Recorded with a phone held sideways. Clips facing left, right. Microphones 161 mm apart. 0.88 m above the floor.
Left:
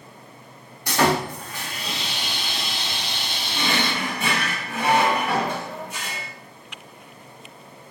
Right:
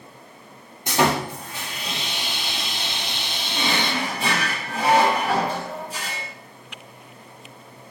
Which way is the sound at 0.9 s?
20° right (ahead or behind).